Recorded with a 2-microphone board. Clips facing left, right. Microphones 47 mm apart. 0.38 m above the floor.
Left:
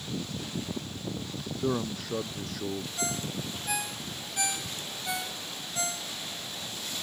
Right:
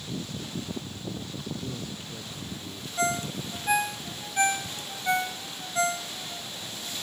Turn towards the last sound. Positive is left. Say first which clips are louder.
# right 5 dB
turn(degrees=-40)  # may be behind; listen again after turning